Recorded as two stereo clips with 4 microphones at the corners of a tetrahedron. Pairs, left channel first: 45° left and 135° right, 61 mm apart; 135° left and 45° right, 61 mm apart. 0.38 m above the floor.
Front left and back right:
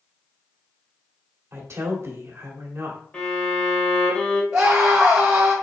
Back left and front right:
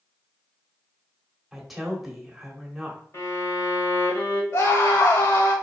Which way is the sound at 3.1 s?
110° left.